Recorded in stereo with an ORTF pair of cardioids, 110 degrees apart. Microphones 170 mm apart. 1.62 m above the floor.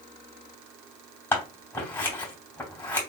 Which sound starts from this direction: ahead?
Scissors, at 1.3 s.